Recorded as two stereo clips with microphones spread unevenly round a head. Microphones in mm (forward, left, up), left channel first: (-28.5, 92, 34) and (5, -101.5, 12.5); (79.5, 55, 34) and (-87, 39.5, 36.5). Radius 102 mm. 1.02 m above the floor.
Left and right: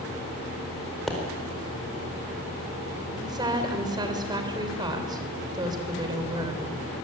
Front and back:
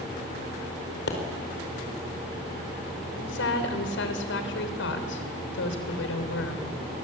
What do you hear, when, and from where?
1.1 s a pop: 10° left, 5 m
3.2 s a woman speaking: 10° right, 3.5 m